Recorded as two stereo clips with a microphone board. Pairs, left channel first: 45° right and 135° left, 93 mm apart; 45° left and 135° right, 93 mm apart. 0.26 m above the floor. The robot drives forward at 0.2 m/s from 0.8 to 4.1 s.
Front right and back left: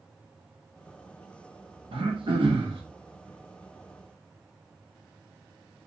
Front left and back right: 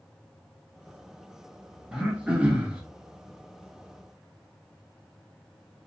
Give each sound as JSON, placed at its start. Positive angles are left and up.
{"t": 1.9, "sound": "throat clearing", "azimuth_deg": 145, "distance_m": 0.9}